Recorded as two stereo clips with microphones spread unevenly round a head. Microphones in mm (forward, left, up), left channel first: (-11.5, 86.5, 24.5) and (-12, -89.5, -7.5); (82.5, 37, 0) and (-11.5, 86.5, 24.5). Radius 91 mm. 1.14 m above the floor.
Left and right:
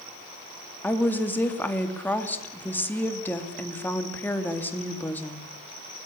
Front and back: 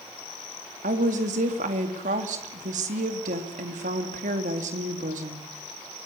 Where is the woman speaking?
170° left, 3 m.